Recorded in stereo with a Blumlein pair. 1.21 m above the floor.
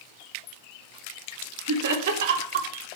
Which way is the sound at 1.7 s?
55° right.